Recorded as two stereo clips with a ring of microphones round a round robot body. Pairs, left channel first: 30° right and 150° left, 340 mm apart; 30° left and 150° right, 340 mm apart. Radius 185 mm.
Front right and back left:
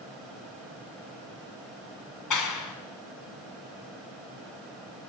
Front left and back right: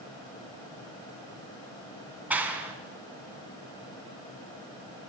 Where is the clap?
65° right, 3 m.